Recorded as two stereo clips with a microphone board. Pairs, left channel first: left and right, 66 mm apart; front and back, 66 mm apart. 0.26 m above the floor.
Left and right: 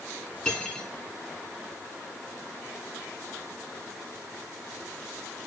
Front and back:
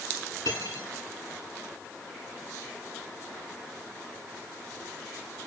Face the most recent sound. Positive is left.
turn(degrees=25)